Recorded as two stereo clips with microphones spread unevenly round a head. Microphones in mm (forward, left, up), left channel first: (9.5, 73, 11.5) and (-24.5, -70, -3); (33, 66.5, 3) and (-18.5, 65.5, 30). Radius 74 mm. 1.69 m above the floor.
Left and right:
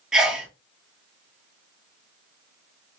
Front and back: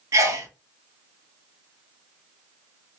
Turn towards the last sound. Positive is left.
turn(degrees=170)